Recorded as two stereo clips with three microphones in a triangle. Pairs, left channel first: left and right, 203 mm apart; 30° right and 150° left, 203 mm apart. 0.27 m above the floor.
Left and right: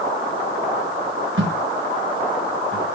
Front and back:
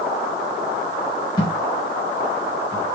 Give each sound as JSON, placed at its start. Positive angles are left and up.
{"t": 1.4, "sound": "a thud", "azimuth_deg": -100, "distance_m": 7.0}